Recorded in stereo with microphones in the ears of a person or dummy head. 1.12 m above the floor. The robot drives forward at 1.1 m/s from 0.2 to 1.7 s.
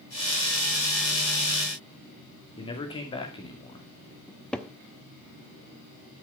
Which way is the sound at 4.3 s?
Centre (ahead or behind).